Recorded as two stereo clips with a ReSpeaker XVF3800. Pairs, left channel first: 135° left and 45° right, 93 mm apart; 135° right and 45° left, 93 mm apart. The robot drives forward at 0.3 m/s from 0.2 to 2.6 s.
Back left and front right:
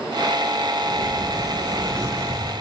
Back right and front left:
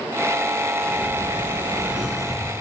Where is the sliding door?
20° right, 0.9 m; by 2.6 s 55° right, 0.6 m.